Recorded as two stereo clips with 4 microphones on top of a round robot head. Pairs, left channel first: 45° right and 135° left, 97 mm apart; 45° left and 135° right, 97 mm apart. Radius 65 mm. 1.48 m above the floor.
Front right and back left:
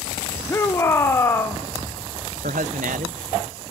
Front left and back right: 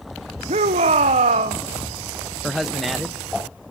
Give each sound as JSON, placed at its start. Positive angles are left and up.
{"t": 0.5, "sound": "a shout", "azimuth_deg": -115, "distance_m": 1.1}
{"t": 2.4, "sound": "a man speaking", "azimuth_deg": 140, "distance_m": 0.7}